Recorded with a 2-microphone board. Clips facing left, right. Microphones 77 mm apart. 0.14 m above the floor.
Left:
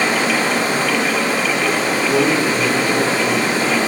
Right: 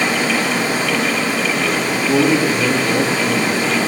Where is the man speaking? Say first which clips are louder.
Right 3 dB; 5° right (ahead or behind), 3 m.